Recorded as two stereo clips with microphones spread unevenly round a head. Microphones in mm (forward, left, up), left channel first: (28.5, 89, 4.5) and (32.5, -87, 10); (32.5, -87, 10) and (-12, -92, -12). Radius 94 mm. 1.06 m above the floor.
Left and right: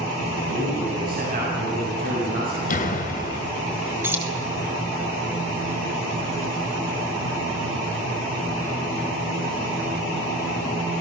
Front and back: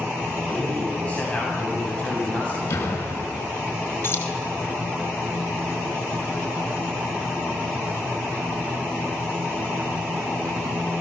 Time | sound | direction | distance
0.5 | a man speaking | 50° right | 8.5 m
2.7 | a door slam | 45° left | 4.5 m
4.0 | keys jangling | 10° right | 4 m